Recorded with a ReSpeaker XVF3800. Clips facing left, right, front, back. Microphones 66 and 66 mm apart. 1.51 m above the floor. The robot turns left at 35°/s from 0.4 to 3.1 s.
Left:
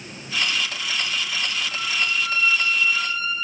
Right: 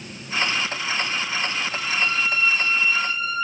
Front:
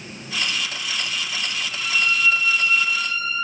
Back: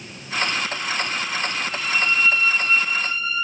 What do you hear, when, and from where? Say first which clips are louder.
1.6 s a violin: right 1 dB, front 1 dB; 140° left, 1.7 m; by 3.3 s 90° left, 1.7 m